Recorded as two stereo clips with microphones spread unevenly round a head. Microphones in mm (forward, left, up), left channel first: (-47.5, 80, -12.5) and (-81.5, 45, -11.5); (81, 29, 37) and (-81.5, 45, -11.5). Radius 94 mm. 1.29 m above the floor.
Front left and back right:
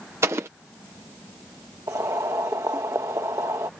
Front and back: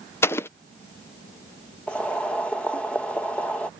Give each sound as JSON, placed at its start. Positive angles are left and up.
{"t": 0.2, "sound": "an explosion", "azimuth_deg": -90}
{"t": 1.9, "sound": "boiling", "azimuth_deg": -90}